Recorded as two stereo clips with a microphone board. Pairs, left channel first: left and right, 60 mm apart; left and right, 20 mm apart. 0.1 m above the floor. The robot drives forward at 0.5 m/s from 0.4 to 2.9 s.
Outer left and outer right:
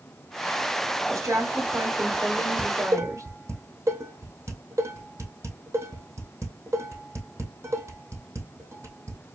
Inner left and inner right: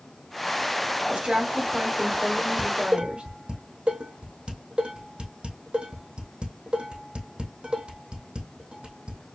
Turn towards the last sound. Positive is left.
turn(degrees=-50)  # may be behind; listen again after turning